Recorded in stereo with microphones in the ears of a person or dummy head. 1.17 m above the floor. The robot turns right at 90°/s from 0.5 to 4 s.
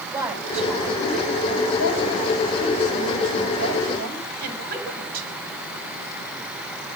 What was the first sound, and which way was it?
A woman speaking, 10° right.